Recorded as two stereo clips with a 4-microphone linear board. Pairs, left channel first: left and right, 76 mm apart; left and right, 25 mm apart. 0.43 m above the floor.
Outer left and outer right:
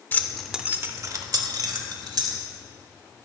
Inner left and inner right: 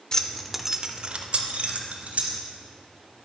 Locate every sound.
0.1 s keys jangling: 25° left (ahead or behind), 0.7 m; by 2.4 s 75° right (ahead or behind), 1.8 m